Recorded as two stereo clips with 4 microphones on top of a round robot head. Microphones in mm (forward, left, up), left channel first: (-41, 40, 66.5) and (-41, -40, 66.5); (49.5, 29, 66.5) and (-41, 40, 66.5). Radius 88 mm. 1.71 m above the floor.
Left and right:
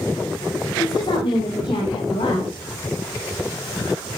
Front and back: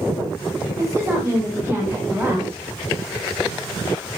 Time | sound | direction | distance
0.8 | a woman speaking | 115° left | 8 m